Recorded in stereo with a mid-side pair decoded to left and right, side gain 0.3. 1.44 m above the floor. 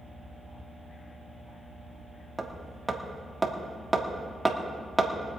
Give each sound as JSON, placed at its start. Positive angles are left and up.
{"t": 2.4, "sound": "hammering", "azimuth_deg": -15, "distance_m": 1.9}